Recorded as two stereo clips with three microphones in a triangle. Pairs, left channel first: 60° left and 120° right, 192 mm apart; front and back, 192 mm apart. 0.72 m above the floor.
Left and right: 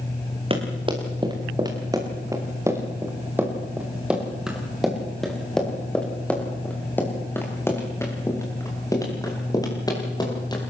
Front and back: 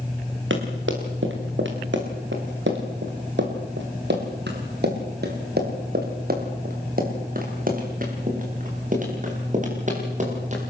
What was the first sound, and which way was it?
Running footsteps, straight behind.